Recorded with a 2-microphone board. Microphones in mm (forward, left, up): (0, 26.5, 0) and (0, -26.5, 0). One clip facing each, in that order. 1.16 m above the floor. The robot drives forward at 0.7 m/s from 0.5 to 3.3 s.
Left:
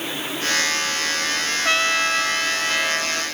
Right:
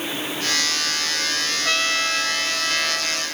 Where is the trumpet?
20° left (ahead or behind), 0.5 m; by 3.2 s 5° left (ahead or behind), 1.6 m.